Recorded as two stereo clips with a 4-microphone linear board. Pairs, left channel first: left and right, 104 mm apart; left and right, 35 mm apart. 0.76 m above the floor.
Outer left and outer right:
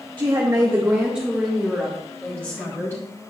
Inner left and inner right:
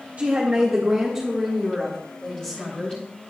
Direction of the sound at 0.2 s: 45° right (ahead or behind).